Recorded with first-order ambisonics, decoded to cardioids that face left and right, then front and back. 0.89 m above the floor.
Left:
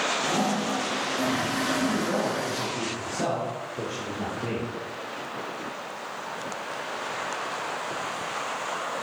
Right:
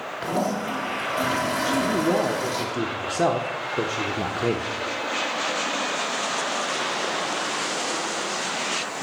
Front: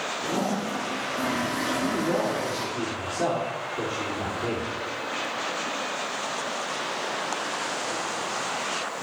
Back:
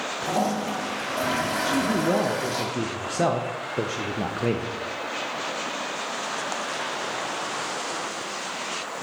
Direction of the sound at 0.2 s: 145° right.